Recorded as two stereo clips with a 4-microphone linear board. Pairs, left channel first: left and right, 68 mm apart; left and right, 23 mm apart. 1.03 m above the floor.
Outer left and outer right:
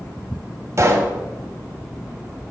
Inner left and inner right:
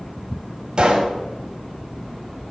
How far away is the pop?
About 1.5 m.